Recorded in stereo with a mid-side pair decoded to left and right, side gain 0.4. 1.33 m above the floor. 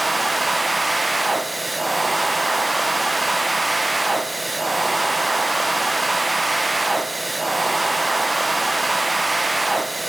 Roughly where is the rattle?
I don't hear a rattle.